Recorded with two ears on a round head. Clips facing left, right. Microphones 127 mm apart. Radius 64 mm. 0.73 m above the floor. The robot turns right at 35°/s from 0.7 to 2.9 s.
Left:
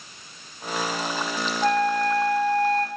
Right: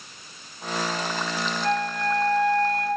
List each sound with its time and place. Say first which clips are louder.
1.6 s a flute: left 5 dB; 55° left, 0.9 m; by 2.9 s 100° left, 0.9 m